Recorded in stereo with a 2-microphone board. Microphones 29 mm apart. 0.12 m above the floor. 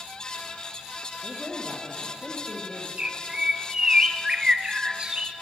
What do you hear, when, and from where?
1.2 s a man speaking: 10° left (ahead or behind), 4 m
3.0 s a bird: 30° right (ahead or behind), 1.3 m